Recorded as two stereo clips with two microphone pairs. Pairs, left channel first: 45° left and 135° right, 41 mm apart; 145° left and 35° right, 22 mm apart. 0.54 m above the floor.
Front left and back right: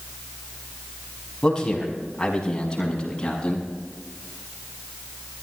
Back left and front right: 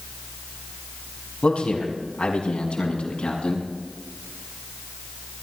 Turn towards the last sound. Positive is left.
turn(degrees=115)